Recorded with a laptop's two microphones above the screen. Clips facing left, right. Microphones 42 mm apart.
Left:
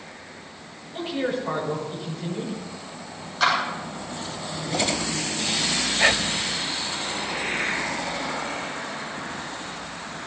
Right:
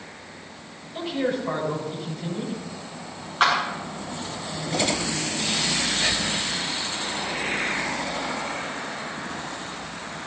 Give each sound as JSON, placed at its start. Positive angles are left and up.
{"t": 0.9, "sound": "a man speaking", "side_deg": 10, "distance_m": 8.0}
{"t": 3.4, "sound": "a clap", "side_deg": -40, "distance_m": 9.0}
{"t": 6.0, "sound": "whispering", "side_deg": 55, "distance_m": 0.9}